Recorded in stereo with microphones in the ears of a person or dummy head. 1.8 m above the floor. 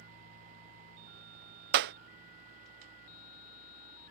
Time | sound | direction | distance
1.7 | a clap | 65° right (ahead or behind) | ?